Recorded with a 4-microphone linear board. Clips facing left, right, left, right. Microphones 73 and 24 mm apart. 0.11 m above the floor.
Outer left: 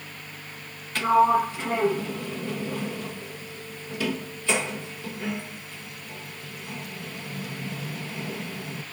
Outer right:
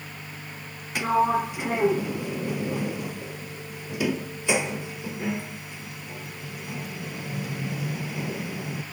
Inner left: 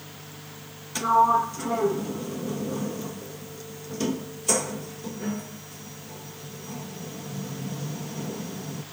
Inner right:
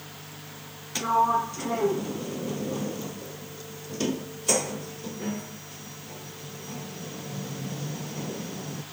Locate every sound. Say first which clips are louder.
0.9 s a sliding door: outer left 3 dB, inner left 3 dB; 15° right (ahead or behind), 1.0 m